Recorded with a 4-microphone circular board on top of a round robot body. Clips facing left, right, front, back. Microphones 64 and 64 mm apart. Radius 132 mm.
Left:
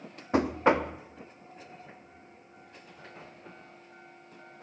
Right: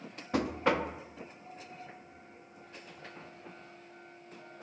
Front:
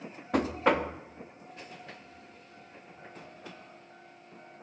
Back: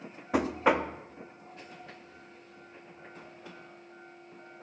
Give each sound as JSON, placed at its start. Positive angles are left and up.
{"t": 0.3, "sound": "knocking", "azimuth_deg": 105, "distance_m": 0.6}